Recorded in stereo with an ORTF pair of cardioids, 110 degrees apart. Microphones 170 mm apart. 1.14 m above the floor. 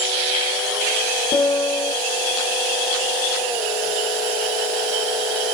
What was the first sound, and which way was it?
A piano, 40° left.